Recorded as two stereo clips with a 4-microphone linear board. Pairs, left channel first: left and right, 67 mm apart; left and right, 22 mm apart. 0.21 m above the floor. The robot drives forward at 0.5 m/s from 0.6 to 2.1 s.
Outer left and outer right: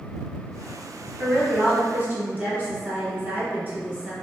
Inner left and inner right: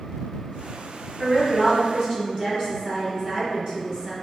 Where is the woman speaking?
30° right (ahead or behind), 1.2 m.